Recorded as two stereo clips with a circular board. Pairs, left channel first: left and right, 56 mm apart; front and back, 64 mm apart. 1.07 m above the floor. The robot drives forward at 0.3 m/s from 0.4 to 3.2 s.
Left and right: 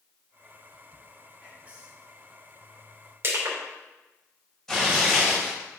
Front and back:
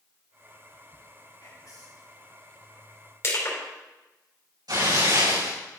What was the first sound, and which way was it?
Whispering, 25° right.